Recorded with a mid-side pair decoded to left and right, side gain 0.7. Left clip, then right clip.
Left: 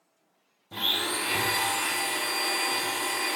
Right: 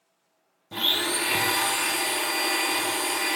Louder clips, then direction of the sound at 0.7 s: Right 3 dB; 20° right.